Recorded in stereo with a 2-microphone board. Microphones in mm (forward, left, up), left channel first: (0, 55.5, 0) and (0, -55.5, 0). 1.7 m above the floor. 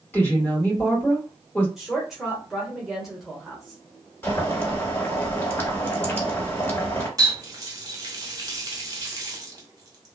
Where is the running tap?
35° right (ahead or behind), 0.8 m.